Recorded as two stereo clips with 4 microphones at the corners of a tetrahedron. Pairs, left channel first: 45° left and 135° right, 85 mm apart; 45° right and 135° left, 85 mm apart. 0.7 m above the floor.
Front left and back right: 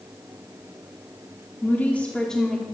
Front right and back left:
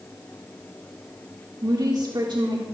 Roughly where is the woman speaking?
Left.